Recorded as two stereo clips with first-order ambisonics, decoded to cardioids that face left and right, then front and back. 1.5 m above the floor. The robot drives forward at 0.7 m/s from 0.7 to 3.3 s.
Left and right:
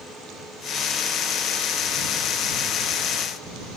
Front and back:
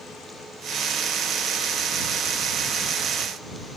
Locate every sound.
Only background noise.